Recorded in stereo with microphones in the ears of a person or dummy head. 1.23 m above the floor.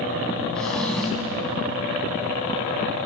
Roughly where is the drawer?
Centre.